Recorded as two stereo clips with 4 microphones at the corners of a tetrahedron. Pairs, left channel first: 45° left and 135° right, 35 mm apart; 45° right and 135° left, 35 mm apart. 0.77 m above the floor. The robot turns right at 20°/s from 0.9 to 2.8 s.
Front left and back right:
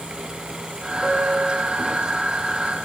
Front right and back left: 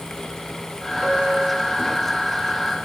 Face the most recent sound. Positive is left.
turn(degrees=130)